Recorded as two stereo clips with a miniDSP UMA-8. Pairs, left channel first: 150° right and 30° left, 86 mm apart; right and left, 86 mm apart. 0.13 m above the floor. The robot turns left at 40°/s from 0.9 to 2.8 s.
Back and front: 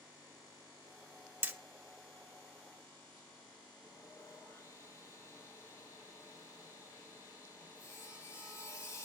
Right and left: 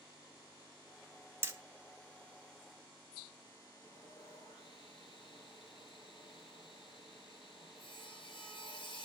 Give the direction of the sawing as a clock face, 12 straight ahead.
3 o'clock.